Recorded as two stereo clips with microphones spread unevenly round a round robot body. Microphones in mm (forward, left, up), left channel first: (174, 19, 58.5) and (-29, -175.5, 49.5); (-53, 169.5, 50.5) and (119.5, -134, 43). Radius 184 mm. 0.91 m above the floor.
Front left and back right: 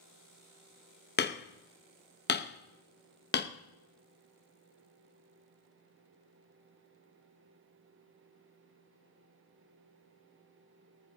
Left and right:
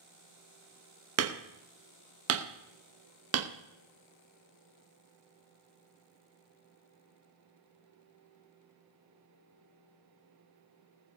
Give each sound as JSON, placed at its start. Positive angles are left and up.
{"t": 1.2, "sound": "hammering", "azimuth_deg": -10, "distance_m": 0.9}